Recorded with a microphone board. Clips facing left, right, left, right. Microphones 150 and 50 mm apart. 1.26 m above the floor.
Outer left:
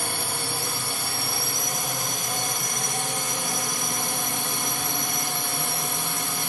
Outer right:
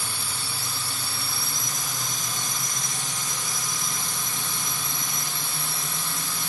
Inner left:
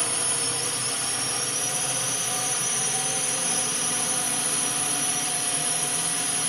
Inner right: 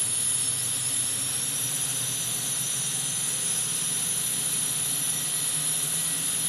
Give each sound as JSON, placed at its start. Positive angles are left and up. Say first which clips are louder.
{"t": 0.0, "sound": "a drone", "louder": "outer left 6 dB, inner left 7 dB", "side_deg": 60}